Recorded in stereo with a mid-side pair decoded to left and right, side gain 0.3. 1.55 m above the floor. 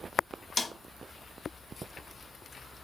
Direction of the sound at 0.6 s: 45° left.